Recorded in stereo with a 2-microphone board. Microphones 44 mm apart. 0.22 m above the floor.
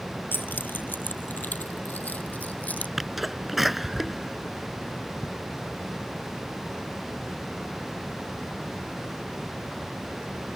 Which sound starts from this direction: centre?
A sneeze, at 3.0 s.